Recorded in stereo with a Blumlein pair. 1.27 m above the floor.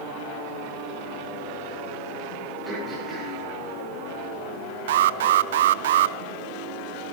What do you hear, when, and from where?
2.6 s throat clearing: 15° right, 9 m
4.9 s an alarm: 55° right, 0.5 m